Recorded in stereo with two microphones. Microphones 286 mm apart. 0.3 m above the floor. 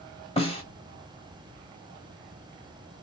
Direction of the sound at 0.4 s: 20° left (ahead or behind).